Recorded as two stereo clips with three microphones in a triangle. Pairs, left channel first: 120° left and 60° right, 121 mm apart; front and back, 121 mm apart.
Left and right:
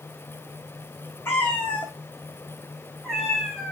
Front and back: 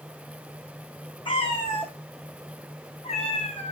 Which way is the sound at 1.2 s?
50° left.